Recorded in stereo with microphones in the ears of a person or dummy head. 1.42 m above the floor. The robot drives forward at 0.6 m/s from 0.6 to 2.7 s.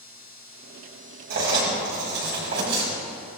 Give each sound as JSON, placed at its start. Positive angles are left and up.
{"t": 1.3, "sound": "writing", "side_deg": -60, "distance_m": 5.0}